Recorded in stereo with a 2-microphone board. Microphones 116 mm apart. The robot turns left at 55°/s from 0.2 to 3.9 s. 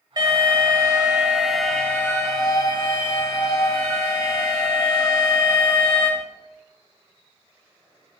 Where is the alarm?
110° right, 2 m; by 6.1 s 45° left, 2 m.